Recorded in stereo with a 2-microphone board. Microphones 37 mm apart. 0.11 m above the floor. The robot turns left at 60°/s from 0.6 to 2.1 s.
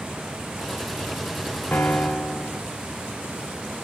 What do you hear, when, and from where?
1.7 s a piano: 55° left (ahead or behind), 2.5 m; by 2.6 s 30° left (ahead or behind), 2.5 m